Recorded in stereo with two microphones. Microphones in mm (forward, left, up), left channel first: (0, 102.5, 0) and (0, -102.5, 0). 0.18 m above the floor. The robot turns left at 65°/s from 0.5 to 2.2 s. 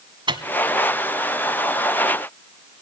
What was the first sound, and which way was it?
A microwave, 25° right (ahead or behind).